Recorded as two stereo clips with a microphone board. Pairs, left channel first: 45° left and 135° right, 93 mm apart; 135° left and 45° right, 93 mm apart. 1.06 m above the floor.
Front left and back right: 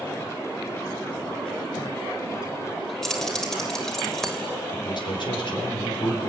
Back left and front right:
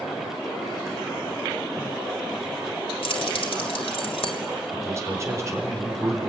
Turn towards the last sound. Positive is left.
turn(degrees=10)